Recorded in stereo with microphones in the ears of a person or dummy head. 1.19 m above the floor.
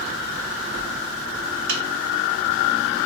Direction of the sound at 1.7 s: 60° right (ahead or behind).